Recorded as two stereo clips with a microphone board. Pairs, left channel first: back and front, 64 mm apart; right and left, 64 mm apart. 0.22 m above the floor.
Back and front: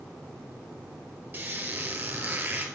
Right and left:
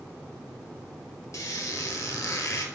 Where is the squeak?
60° right, 1.2 m.